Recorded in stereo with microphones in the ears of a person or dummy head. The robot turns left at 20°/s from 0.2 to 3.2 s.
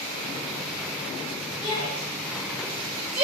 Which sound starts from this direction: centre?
A shout, at 1.6 s.